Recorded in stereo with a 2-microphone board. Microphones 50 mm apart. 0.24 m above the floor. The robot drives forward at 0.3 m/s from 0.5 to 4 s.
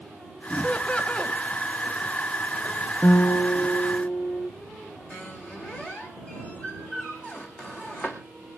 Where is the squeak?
25° left (ahead or behind), 2.5 m.